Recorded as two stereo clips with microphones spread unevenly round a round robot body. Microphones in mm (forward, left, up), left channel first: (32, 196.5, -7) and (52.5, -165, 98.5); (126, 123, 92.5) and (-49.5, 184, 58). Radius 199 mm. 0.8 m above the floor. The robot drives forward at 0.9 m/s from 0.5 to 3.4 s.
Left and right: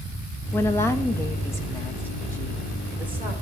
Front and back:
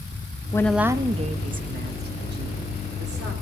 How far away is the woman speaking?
About 0.7 m.